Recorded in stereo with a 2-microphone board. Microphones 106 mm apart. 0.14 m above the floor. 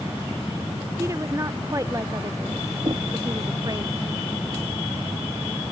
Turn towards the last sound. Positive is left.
turn(degrees=-40)  # may be behind; listen again after turning